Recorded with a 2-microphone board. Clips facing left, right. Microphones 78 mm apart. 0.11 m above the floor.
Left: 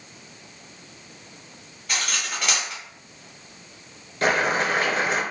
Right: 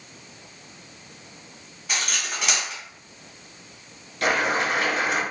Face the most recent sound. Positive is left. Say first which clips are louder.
# left 1 dB
turn(degrees=30)  # may be behind; listen again after turning